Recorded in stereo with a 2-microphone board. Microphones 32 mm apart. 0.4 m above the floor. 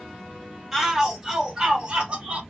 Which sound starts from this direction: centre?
A shout, at 0.7 s.